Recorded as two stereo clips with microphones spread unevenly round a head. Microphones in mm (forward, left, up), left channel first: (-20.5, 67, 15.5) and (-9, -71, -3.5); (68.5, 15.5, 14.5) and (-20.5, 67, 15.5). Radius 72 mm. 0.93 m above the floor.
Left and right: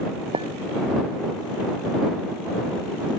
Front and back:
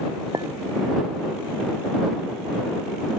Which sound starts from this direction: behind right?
A clink, at 0.3 s.